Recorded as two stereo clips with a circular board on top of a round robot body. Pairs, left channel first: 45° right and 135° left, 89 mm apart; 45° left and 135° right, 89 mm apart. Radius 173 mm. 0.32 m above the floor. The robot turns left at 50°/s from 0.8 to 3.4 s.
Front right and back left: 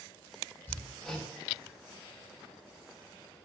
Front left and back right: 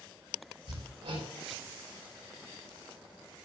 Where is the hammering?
115° right, 6 m; by 1.3 s 140° right, 6 m.